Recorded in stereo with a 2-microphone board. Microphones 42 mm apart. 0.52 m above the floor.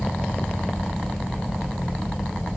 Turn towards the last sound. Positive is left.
No sound to turn to.